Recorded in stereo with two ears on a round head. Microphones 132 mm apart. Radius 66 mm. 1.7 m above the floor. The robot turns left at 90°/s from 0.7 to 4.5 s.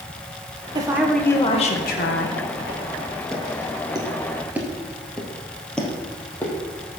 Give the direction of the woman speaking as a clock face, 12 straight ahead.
5 o'clock.